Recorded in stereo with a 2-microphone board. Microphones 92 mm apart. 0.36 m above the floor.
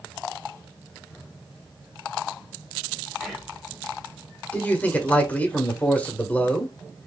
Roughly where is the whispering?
Centre.